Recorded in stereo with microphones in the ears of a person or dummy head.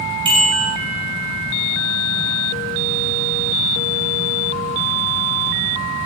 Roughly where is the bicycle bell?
Right.